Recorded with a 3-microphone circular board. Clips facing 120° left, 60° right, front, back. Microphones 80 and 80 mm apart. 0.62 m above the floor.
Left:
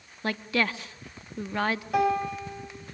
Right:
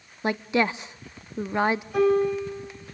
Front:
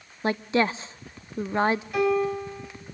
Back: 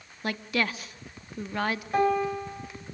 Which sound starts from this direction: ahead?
A woman speaking, at 0.2 s.